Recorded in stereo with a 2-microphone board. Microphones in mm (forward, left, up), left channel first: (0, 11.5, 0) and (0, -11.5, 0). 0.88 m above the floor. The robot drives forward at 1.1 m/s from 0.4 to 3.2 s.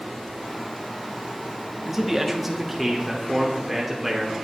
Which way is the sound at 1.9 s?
15° right (ahead or behind).